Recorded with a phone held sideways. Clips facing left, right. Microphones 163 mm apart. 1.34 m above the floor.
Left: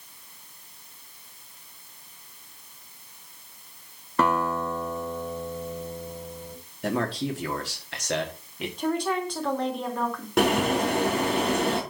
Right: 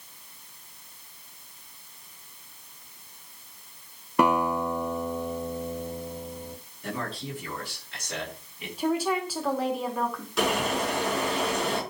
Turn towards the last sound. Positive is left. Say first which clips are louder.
# left 4 dB
turn(degrees=60)  # may be behind; listen again after turning